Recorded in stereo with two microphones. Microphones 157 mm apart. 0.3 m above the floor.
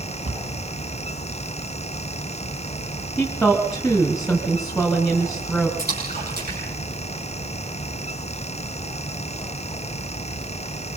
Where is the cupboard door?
55° right (ahead or behind), 2.5 m.